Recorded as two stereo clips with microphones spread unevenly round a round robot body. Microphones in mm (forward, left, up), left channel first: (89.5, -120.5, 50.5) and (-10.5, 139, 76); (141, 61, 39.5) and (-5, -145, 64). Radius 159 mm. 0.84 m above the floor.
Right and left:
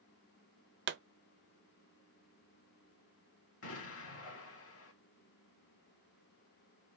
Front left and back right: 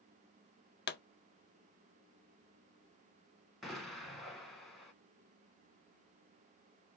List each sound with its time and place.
0.9 s a pop: 70° left, 0.5 m
3.6 s an explosion: 35° right, 1.8 m